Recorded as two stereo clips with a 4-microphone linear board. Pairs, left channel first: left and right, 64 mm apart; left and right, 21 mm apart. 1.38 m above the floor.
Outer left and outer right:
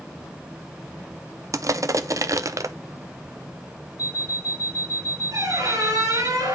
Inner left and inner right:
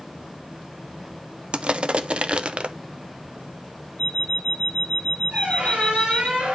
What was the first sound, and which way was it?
Crushing, 55° right (ahead or behind).